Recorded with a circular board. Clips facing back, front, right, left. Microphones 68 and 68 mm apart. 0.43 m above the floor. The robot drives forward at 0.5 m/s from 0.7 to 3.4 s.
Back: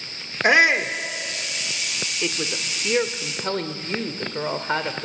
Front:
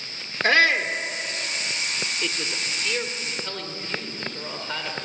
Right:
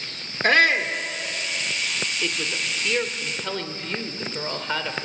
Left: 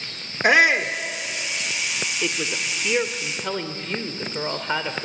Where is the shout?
145° left, 0.9 m; by 0.9 s 155° left, 1.0 m.